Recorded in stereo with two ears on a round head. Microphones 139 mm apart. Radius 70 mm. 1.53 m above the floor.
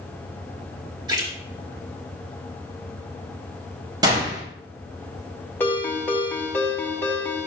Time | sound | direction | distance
1.1 | a splash | 25° right (ahead or behind) | 2.5 m
4.0 | a gunshot | 25° right (ahead or behind) | 3.5 m
5.6 | a ringtone | 15° left (ahead or behind) | 1.9 m